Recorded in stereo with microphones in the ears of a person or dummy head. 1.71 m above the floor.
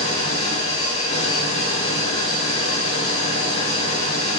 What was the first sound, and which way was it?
An engine running, 30° left (ahead or behind).